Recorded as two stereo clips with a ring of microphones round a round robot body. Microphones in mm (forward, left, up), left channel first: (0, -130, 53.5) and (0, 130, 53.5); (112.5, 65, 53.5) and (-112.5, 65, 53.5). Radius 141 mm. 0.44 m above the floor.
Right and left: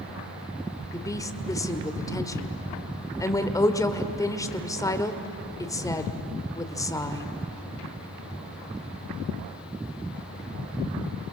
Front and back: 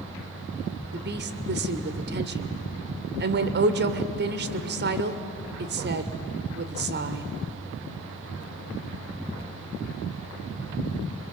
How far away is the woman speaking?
About 1.7 m.